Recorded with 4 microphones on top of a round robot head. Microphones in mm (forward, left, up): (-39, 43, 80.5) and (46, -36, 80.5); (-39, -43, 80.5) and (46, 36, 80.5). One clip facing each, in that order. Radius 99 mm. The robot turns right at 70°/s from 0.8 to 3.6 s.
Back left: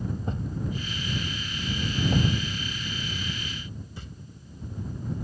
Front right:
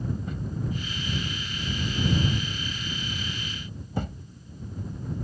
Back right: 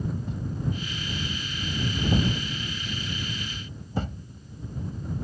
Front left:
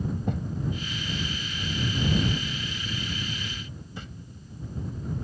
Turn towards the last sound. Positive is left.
turn(degrees=-85)